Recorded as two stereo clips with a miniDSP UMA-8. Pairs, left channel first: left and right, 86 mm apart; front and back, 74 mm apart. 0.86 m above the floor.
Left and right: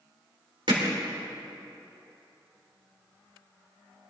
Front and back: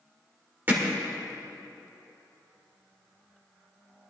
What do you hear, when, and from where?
0.7 s hammering: 115° right, 1.9 m